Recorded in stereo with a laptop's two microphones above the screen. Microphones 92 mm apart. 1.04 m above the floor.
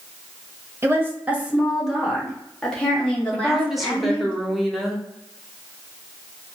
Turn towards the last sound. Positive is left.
turn(degrees=0)  # may be behind; listen again after turning